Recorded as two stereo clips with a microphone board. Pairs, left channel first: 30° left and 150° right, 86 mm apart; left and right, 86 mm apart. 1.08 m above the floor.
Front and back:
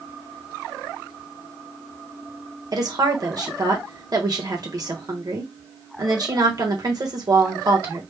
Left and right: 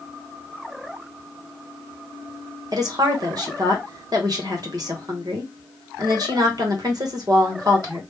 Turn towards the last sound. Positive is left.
turn(degrees=-120)